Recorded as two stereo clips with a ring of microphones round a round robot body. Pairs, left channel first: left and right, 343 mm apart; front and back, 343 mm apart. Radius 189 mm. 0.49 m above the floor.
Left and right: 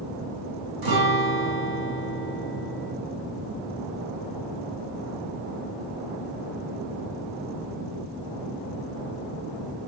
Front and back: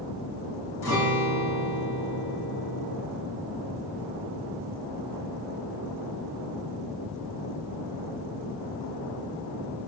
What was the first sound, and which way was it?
A guitar, 75° right.